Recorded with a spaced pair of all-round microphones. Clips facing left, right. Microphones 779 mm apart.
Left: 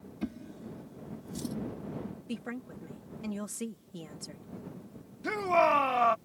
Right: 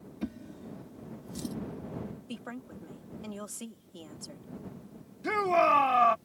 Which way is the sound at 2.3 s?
55° left (ahead or behind).